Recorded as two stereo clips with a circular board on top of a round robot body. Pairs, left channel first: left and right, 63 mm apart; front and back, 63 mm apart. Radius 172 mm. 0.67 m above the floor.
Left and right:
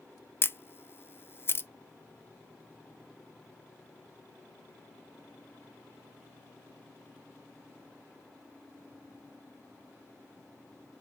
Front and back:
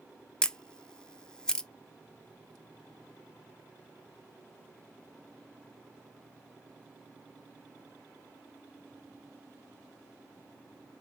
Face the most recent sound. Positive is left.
turn(degrees=70)